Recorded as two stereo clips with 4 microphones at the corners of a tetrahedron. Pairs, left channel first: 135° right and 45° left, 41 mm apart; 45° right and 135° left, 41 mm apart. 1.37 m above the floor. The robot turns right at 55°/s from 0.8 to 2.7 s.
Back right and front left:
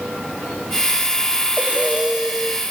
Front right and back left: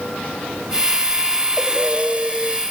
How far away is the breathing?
About 1.4 m.